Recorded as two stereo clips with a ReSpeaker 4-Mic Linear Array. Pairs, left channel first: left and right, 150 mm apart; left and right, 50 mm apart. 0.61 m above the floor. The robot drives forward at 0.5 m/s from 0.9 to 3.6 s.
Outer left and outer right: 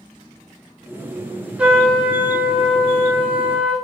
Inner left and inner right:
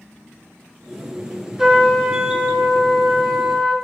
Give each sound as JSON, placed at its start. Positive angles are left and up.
{"t": 1.6, "sound": "a trumpet", "side_deg": -10, "distance_m": 2.0}